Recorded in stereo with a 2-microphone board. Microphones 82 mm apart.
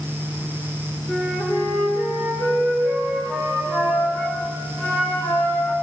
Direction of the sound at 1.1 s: 20° left (ahead or behind).